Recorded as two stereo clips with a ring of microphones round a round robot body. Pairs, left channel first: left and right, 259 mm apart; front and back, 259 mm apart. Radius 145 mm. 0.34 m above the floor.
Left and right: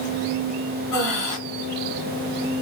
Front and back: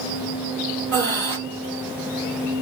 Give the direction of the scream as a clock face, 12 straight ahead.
No scream in this recording.